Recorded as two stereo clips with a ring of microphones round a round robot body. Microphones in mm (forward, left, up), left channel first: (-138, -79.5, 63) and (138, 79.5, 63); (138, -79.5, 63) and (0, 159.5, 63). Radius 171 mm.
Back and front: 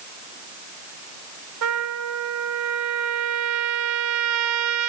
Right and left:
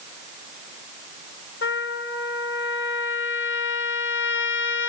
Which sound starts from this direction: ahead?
A trumpet, at 1.6 s.